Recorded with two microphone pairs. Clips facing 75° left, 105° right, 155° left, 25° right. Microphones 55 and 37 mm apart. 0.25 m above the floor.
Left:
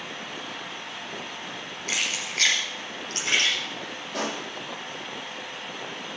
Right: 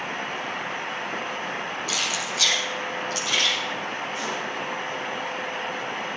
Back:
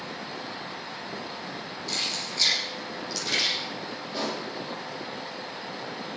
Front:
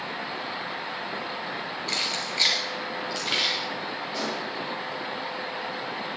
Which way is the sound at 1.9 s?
20° left.